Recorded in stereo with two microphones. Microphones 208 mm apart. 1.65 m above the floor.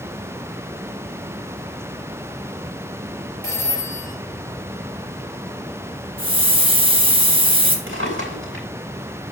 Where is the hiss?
25° right (ahead or behind), 1.5 m.